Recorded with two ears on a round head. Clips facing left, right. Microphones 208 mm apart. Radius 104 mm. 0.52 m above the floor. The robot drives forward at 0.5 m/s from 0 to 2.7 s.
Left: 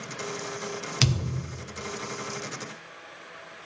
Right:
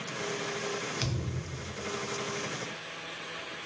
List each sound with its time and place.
1.0 s a thud: 70° left (ahead or behind), 1.2 m; by 1.5 s 80° left, 1.1 m